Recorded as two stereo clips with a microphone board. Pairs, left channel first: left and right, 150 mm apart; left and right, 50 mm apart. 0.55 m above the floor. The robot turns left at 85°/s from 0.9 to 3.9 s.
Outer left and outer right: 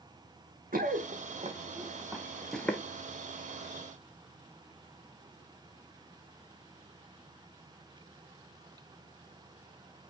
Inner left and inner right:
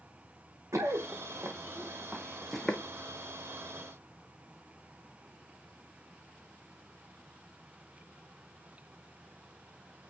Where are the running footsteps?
70° right (ahead or behind), 1.8 m; by 2.8 s 15° left (ahead or behind), 1.5 m.